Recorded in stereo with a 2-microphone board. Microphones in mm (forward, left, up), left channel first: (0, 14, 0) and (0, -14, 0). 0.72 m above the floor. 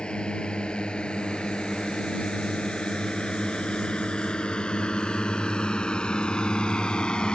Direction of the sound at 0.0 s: 40° left (ahead or behind).